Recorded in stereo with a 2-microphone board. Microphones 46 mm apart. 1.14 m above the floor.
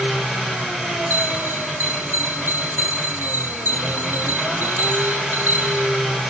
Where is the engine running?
5° right (ahead or behind), 3 m.